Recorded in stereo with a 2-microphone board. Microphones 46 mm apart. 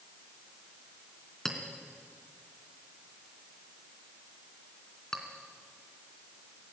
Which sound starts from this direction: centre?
A clink, at 1.4 s.